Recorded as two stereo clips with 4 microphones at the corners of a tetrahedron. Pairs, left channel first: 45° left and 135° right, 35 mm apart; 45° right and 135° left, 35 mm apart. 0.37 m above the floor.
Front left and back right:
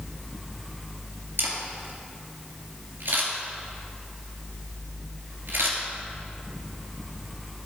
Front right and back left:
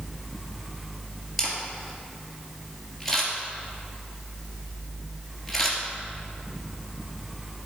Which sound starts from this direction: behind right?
A camera shutter, at 1.4 s.